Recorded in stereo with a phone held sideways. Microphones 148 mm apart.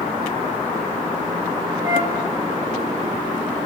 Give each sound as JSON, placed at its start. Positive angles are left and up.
{"t": 1.8, "sound": "a flute", "side_deg": -30, "distance_m": 9.0}